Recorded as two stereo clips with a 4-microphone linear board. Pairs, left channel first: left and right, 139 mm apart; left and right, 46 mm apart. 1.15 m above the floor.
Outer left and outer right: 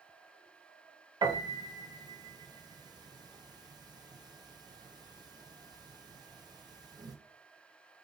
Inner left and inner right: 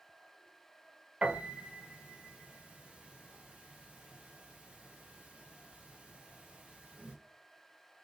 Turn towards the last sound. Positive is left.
turn(degrees=-30)  # may be behind; listen again after turning